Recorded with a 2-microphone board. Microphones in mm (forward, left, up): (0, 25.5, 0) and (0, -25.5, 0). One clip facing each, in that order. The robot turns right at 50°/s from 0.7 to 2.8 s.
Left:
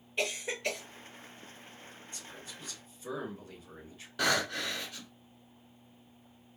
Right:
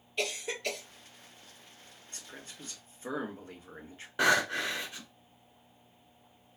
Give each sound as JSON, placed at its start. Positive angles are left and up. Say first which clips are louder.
{"t": 0.2, "sound": "a cough", "louder": "left 1 dB", "side_deg": 15, "distance_m": 1.9}
{"t": 2.1, "sound": "a man speaking", "louder": "right 2 dB", "azimuth_deg": -90, "distance_m": 1.7}
{"t": 4.2, "sound": "breathing", "louder": "right 4 dB", "side_deg": -25, "distance_m": 1.2}